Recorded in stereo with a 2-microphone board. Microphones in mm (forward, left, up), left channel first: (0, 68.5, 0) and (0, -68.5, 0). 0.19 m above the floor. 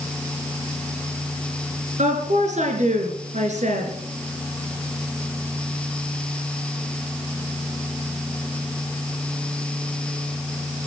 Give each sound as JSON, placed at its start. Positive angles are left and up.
{"t": 2.0, "sound": "a woman speaking", "side_deg": -60, "distance_m": 3.5}